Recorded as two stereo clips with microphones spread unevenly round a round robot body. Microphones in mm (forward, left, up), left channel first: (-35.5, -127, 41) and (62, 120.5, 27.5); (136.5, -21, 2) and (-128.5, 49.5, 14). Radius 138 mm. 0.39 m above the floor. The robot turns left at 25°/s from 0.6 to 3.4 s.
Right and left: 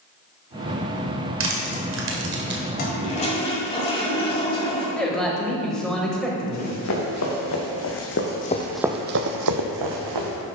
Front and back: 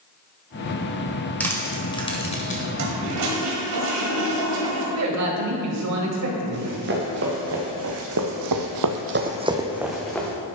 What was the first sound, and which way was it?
Crushing, 65° left.